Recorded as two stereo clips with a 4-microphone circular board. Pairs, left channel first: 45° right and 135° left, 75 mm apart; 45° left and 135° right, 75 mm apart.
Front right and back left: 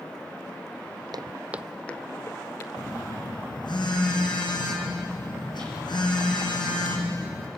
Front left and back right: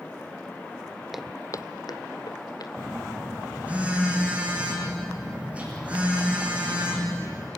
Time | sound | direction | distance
1.1 | footsteps | 140° left | 0.7 m
2.8 | a phone buzzing | 65° right | 5 m